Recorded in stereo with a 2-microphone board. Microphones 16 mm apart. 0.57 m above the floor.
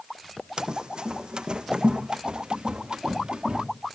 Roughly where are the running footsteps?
Right.